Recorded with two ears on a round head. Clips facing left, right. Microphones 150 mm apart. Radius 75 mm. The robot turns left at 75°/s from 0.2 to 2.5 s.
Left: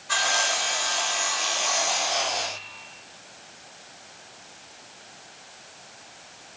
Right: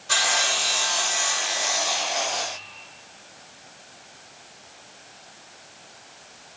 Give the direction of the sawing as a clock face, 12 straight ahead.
2 o'clock.